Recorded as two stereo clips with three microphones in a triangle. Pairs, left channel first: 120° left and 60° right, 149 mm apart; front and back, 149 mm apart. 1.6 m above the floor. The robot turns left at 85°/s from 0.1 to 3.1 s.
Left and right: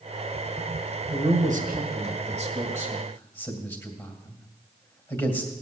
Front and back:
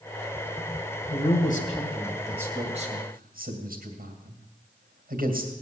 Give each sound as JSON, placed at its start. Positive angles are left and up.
{"t": 1.1, "sound": "a man speaking", "azimuth_deg": -5, "distance_m": 2.5}